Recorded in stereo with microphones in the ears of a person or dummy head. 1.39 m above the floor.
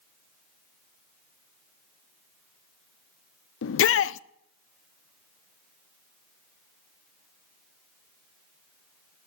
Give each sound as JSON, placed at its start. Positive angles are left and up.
{"t": 3.6, "sound": "a shout", "side_deg": 65, "distance_m": 0.6}